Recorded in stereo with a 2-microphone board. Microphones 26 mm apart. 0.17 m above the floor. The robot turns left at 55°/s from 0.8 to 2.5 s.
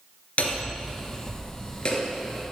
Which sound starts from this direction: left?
Hammering, at 0.4 s.